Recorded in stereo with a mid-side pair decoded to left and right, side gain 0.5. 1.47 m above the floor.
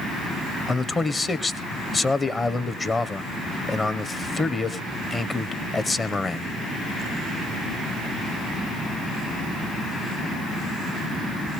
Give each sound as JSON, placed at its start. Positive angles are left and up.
{"t": 0.7, "sound": "a man speaking", "azimuth_deg": 25, "distance_m": 1.1}